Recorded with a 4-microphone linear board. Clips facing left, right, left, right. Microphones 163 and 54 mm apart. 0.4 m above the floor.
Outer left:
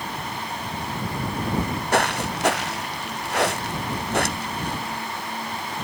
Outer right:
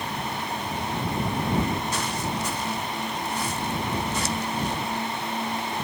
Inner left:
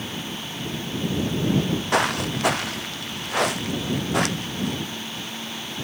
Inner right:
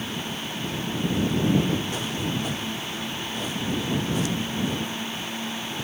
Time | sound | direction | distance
1.5 | footsteps | 65° left (ahead or behind) | ?